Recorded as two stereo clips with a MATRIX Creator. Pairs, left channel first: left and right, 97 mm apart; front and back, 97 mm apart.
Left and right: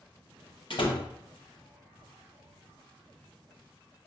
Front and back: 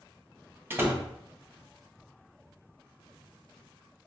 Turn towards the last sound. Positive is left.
turn(degrees=110)